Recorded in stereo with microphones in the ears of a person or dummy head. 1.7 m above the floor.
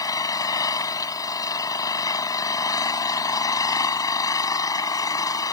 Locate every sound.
0.0 s an engine running: 20° left (ahead or behind)